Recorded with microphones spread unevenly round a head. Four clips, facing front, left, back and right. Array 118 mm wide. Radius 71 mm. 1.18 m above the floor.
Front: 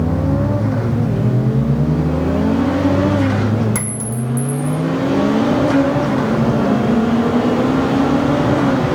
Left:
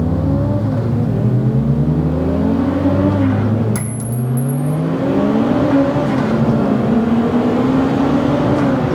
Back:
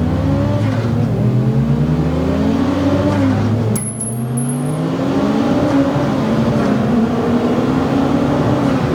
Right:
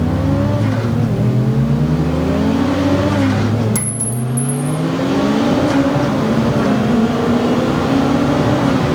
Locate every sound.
3.8 s a clink: 10° right, 2.5 m